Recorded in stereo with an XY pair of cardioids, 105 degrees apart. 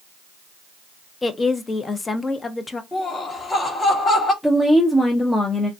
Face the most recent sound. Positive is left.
turn(degrees=10)